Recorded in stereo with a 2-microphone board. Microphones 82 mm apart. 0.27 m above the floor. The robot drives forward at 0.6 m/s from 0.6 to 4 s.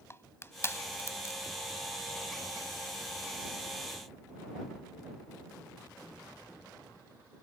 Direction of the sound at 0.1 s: 30° left (ahead or behind).